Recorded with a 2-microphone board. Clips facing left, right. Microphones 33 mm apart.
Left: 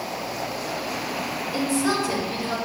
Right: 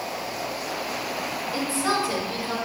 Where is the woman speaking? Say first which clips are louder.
Left 2 dB; 20° right (ahead or behind), 2.0 m.